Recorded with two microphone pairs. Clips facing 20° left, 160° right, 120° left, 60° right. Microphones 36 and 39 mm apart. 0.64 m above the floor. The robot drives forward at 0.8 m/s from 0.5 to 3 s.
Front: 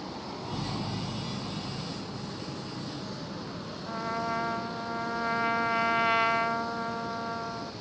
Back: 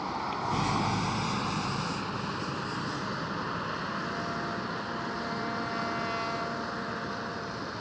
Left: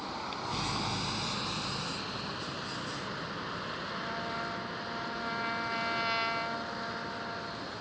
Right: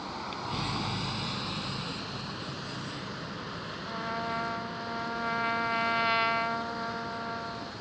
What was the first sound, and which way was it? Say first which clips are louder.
A vehicle: back 6 dB, right 1 dB; 150° right.